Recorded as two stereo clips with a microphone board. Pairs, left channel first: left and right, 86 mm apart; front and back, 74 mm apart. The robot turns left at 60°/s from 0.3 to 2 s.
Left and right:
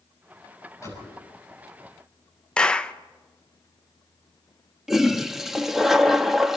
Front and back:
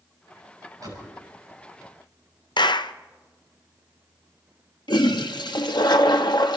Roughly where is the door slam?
Behind left.